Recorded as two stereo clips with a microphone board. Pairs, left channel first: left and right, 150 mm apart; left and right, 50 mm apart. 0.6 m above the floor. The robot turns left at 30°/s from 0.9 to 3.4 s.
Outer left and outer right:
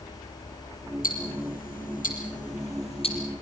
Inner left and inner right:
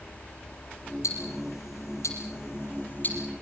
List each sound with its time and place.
1.0 s ticking: 80° left, 5 m; by 3.2 s 35° left (ahead or behind), 5 m